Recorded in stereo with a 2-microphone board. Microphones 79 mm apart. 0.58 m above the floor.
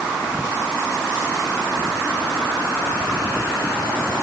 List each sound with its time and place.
Only background noise.